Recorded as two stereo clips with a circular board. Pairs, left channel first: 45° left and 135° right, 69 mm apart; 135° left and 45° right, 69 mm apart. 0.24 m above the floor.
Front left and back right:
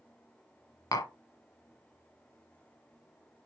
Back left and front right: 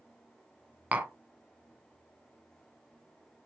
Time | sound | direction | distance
0.9 | tapping | 25° left | 0.7 m